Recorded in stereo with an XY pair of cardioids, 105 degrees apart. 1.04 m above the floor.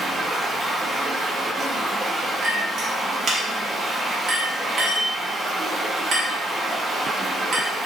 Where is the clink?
60° right, 1.0 m.